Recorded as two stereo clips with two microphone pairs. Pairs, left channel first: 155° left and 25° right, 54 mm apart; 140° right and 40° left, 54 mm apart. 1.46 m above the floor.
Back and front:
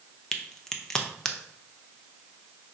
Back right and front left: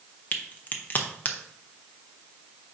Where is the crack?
140° right, 0.6 m.